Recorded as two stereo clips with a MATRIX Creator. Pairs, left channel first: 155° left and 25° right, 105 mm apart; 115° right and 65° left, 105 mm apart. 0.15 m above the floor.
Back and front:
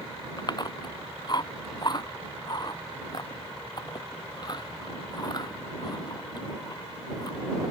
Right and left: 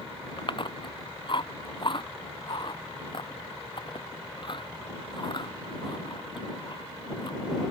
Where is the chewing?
155° right.